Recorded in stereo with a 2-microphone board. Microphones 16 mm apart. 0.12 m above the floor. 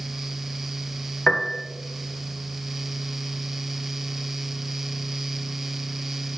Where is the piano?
65° left (ahead or behind), 0.7 m.